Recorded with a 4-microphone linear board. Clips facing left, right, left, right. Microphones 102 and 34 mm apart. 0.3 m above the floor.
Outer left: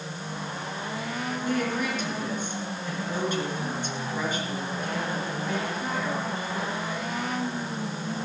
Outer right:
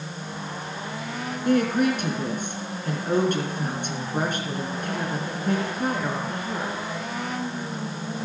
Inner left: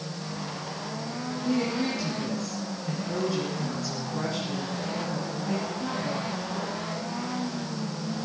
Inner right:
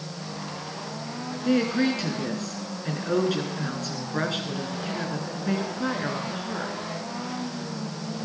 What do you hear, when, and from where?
1.4 s a woman speaking: 60° right (ahead or behind), 4.5 m